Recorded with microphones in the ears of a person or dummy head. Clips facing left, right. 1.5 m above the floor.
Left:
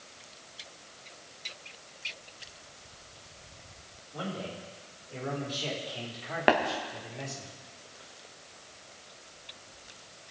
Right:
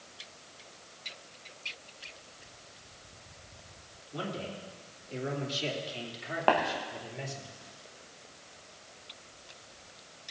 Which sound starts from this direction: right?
A man speaking, at 4.1 s.